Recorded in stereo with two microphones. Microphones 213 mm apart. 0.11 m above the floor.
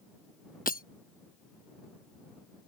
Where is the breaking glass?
45° left (ahead or behind).